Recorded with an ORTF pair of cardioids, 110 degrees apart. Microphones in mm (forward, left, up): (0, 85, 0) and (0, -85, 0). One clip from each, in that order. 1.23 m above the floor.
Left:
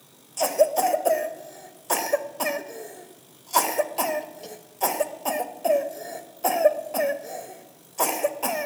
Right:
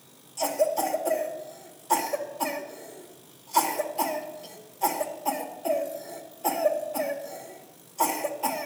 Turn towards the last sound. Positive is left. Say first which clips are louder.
# left 5 dB
turn(degrees=50)